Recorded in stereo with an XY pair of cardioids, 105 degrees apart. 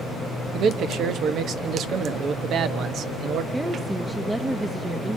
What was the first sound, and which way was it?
A man speaking, 70° right.